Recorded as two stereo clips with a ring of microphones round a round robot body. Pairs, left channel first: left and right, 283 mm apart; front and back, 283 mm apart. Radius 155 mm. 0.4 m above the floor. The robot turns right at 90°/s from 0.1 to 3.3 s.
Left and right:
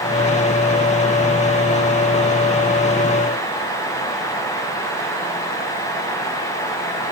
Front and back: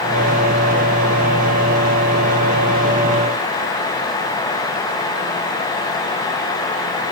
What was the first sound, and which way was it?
Only background noise.